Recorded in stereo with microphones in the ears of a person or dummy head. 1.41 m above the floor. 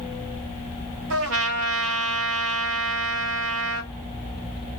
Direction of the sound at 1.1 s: 60° right (ahead or behind).